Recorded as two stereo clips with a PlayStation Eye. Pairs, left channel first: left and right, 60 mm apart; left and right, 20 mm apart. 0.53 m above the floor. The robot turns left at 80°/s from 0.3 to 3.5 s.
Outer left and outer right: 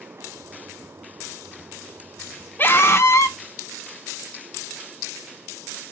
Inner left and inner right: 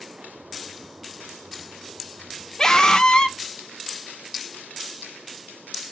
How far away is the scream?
About 1.0 m.